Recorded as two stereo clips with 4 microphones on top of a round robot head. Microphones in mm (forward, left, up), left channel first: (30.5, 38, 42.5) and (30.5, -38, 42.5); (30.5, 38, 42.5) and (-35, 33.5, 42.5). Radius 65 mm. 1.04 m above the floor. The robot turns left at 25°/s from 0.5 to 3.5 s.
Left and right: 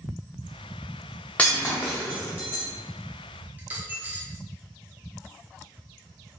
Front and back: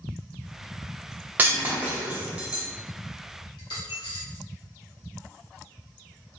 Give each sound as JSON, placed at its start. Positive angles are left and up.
{"t": 1.4, "sound": "breaking glass", "azimuth_deg": 155, "distance_m": 0.6}
{"t": 3.6, "sound": "a dropped coin", "azimuth_deg": -25, "distance_m": 0.7}